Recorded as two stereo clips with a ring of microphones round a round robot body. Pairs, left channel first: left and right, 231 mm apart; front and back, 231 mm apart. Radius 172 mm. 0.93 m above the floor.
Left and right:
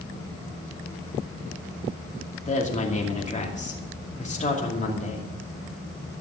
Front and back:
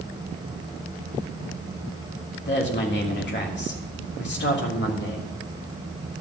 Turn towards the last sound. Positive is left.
turn(degrees=35)